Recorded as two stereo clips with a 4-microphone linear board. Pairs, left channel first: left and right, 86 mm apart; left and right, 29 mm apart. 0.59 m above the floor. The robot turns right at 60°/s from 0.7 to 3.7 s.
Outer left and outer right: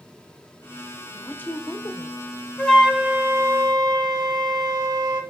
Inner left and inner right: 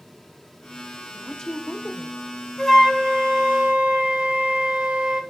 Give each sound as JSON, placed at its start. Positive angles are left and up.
{"t": 1.1, "sound": "a woman speaking", "azimuth_deg": 15, "distance_m": 0.8}
{"t": 2.6, "sound": "a flute", "azimuth_deg": 165, "distance_m": 1.2}